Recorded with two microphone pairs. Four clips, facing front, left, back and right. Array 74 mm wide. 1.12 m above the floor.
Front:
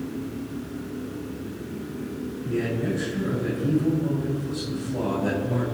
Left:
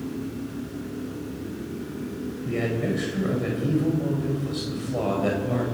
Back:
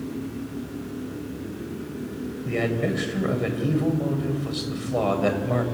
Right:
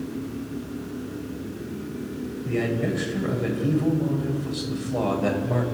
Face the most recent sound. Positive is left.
turn(degrees=-175)